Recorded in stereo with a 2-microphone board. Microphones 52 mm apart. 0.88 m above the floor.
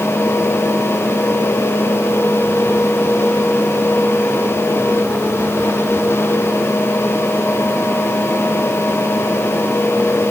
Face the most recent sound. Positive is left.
No sound to turn to.